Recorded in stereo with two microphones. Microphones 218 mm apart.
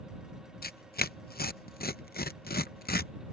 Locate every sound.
0.6 s tearing paper: 45° left (ahead or behind)